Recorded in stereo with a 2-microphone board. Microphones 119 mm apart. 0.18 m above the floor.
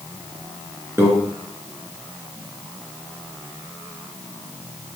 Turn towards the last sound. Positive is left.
turn(degrees=-20)  # may be behind; listen again after turning